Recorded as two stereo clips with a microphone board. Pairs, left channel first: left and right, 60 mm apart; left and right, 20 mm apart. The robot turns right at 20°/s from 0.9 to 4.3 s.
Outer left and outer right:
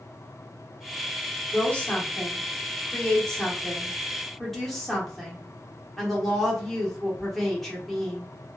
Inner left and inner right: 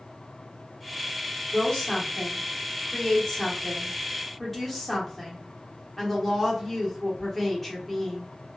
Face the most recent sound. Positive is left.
turn(degrees=5)  # may be behind; listen again after turning